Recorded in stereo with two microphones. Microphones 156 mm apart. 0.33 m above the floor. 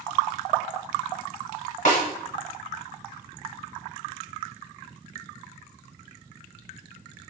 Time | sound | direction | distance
1.9 | a snare drum | 55° left (ahead or behind) | 1.4 m